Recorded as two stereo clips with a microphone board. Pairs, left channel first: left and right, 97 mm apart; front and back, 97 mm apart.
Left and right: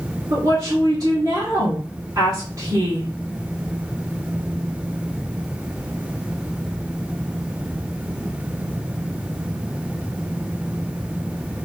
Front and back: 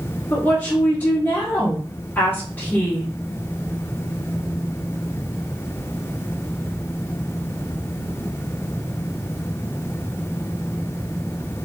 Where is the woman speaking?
55° right, 1.2 m.